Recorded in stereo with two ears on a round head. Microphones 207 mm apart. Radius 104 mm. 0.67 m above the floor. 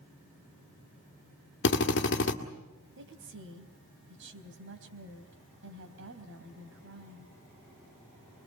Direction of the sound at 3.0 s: 55° right (ahead or behind).